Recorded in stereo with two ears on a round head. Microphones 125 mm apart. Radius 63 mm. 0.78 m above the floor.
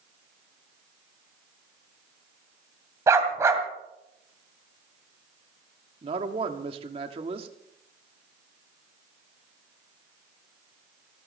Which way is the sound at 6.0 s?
40° right (ahead or behind).